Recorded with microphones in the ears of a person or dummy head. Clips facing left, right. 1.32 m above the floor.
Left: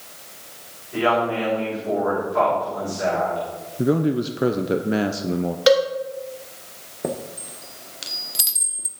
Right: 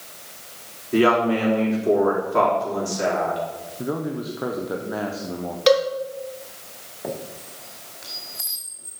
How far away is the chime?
About 1.3 m.